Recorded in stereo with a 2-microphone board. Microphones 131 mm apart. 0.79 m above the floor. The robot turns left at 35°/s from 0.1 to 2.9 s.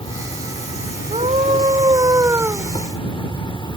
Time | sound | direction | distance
0.0 | an insect | 135° left | ?
1.1 | a scream | 110° right | ?